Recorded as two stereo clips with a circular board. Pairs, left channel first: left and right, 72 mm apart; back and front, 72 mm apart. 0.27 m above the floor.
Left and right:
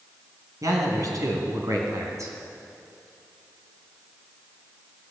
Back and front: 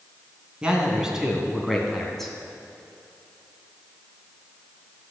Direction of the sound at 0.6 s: 75° right.